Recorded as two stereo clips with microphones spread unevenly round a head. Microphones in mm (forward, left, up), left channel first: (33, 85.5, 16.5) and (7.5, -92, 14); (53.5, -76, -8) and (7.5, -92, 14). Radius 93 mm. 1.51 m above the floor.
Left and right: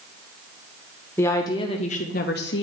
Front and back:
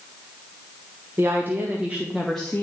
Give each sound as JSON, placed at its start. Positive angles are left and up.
{"t": 1.2, "sound": "a woman speaking", "azimuth_deg": 160, "distance_m": 0.9}